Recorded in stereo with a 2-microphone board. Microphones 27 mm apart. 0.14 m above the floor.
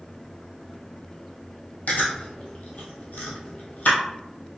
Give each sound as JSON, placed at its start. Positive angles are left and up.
{"t": 1.9, "sound": "chewing", "side_deg": 65, "distance_m": 1.6}